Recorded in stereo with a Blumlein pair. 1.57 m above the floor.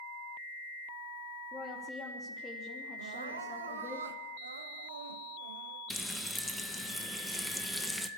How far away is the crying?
About 1.9 m.